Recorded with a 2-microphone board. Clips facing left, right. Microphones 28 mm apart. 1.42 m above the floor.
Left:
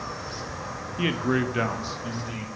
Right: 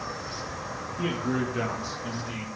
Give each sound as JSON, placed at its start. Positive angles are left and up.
{"t": 1.0, "sound": "a man speaking", "side_deg": 65, "distance_m": 0.7}